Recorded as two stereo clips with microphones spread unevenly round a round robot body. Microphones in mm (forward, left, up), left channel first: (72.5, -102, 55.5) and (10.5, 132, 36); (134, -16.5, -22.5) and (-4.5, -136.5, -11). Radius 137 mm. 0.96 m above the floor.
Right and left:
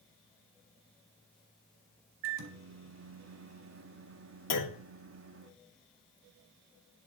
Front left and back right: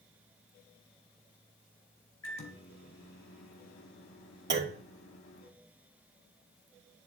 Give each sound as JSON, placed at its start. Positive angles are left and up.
{"t": 2.2, "sound": "a microwave", "azimuth_deg": 75, "distance_m": 1.8}
{"t": 4.5, "sound": "a clunk", "azimuth_deg": -120, "distance_m": 2.5}